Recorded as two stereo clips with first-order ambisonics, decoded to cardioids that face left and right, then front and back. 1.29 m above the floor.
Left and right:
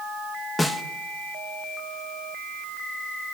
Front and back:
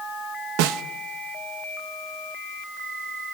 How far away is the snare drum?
About 1.1 m.